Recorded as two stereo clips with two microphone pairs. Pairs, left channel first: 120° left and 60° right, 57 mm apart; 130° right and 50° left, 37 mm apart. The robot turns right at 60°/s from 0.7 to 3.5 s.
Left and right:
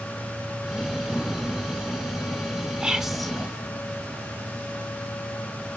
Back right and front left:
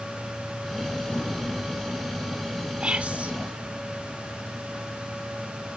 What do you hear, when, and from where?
2.8 s whispering: 5° left, 1.0 m; by 3.3 s 40° left, 1.0 m